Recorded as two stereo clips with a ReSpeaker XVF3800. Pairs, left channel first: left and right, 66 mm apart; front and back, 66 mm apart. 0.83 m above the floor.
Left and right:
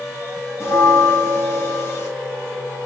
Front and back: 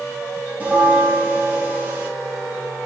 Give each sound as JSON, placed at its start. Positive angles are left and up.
{"t": 0.6, "sound": "a bell", "azimuth_deg": 120, "distance_m": 0.9}